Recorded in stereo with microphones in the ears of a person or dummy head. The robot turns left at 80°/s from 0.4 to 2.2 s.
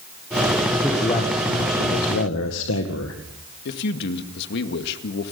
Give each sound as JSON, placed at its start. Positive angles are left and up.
{"t": 0.8, "sound": "a man speaking", "azimuth_deg": 180, "distance_m": 1.9}
{"t": 3.6, "sound": "a man speaking", "side_deg": 55, "distance_m": 2.0}